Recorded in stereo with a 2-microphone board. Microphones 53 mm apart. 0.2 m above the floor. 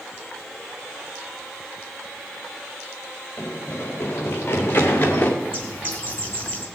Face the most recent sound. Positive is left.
turn(degrees=30)  # may be behind; listen again after turning